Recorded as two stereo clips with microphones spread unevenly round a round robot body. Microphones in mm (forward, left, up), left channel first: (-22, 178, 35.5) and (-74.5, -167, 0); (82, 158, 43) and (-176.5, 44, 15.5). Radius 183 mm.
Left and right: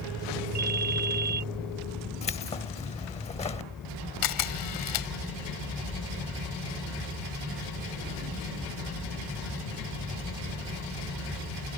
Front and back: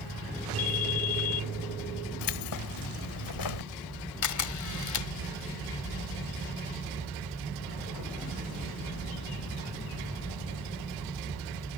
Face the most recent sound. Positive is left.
turn(degrees=40)